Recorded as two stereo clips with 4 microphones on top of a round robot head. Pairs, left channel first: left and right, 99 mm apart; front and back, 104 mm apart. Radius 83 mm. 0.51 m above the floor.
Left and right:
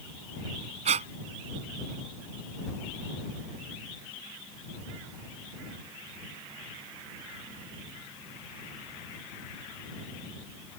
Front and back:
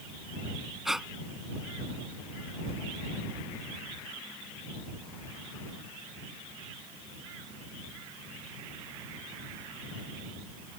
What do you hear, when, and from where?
0.8 s breathing: 95° right